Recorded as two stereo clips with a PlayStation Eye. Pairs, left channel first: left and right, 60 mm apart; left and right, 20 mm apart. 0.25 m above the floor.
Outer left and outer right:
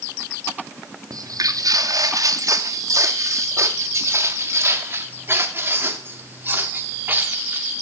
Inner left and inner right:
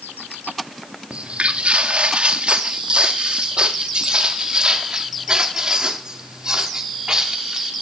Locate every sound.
1.1 s footsteps: 80° right, 1.6 m; by 7.7 s 30° right (ahead or behind), 4 m